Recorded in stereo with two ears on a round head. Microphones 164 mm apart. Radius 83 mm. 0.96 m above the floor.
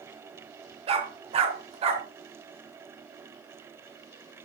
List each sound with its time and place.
0.9 s a dog barking: 35° right (ahead or behind), 1.5 m